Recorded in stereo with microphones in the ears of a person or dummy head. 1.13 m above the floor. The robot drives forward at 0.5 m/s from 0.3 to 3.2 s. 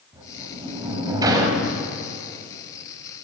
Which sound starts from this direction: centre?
A sliding door, at 0.1 s.